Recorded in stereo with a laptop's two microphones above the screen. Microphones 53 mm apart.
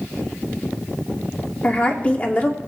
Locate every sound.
1.6 s a woman speaking: 30° left (ahead or behind), 2 m